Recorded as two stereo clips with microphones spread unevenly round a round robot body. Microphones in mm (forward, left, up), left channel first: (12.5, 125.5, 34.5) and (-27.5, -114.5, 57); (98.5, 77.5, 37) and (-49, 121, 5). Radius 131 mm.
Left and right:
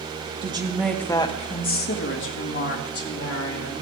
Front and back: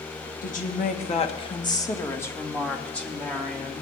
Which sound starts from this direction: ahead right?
A woman speaking, at 0.4 s.